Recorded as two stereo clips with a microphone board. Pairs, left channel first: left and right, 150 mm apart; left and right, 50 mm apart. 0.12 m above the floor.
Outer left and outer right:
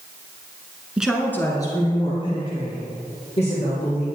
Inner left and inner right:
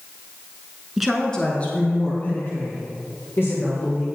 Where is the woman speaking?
5° right (ahead or behind), 1.1 m; by 4.0 s 45° left (ahead or behind), 5 m.